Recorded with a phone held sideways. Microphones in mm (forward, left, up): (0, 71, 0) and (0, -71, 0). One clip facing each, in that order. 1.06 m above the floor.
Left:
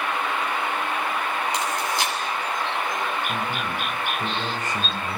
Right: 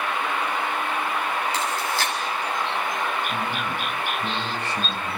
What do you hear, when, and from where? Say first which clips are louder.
1.5 s chewing: even; 20° left (ahead or behind), 7.5 m
3.3 s a man speaking: even; 45° left (ahead or behind), 6.5 m